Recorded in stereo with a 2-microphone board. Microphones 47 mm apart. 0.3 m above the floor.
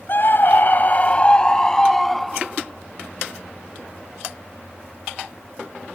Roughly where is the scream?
Left.